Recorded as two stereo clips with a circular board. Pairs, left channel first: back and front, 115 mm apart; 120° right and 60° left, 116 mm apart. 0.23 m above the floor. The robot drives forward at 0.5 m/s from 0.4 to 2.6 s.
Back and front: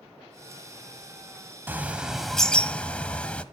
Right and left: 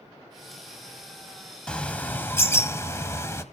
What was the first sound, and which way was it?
A bird, 50° right.